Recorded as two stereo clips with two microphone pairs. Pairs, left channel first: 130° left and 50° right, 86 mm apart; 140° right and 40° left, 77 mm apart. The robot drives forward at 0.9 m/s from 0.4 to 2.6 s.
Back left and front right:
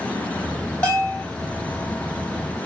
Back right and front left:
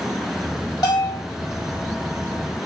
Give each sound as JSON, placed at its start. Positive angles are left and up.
{"t": 0.8, "sound": "a bell", "azimuth_deg": -160, "distance_m": 3.5}